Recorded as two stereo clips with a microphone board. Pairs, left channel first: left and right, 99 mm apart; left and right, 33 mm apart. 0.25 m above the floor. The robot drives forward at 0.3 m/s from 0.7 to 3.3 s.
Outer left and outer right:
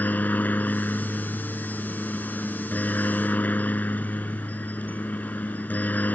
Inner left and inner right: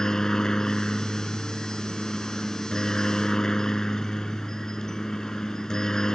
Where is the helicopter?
15° left (ahead or behind).